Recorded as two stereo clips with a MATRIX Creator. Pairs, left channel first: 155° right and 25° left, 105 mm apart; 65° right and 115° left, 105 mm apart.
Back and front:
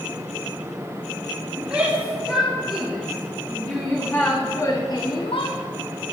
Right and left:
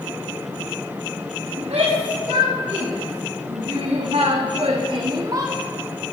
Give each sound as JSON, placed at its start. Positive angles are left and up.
{"t": 1.6, "sound": "a shout", "azimuth_deg": 105, "distance_m": 3.5}